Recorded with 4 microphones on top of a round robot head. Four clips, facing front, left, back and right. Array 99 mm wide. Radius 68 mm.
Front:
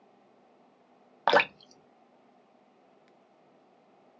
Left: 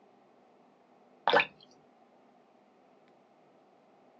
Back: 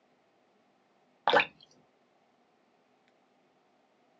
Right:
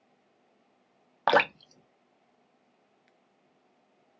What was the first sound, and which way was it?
Dripping, 50° right.